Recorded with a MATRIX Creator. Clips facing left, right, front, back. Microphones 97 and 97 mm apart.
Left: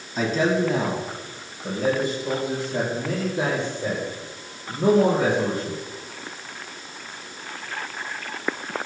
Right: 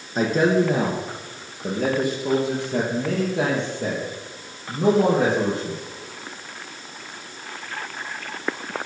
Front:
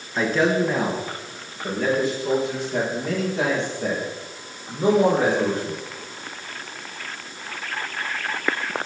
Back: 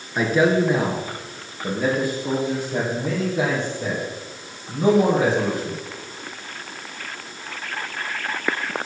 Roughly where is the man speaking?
Right.